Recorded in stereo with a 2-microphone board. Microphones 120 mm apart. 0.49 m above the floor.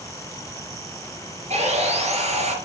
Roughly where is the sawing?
Right.